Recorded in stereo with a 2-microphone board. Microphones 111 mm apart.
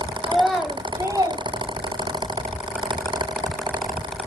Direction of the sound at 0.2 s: 15° left (ahead or behind).